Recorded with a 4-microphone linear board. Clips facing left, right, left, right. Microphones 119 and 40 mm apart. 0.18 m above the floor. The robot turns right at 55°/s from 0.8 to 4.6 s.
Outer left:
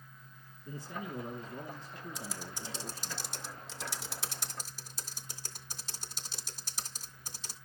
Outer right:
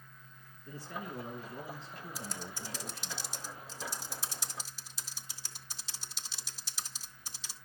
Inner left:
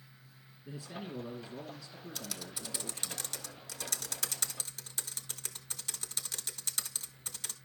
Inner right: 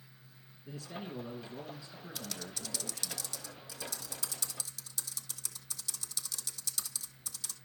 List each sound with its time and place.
0.7 s a man speaking: 155° left, 1.9 m; by 3.1 s 75° right, 1.9 m
2.1 s typing on a keyboard: 5° right (ahead or behind), 0.7 m; by 7.6 s 50° left (ahead or behind), 0.7 m